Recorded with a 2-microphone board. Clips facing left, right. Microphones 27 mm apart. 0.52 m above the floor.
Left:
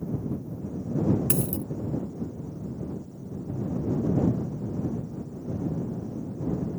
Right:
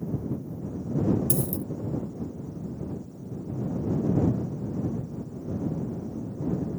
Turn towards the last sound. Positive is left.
turn(degrees=50)  # may be behind; listen again after turning